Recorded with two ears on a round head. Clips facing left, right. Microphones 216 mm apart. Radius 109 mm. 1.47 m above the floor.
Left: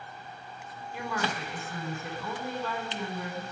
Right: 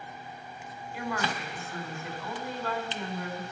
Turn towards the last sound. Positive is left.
turn(degrees=80)